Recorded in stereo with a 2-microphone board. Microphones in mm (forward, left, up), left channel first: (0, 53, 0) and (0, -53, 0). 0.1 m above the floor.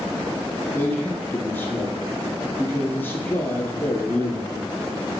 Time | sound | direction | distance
0.7 | a man speaking | 20° left (ahead or behind) | 2.5 m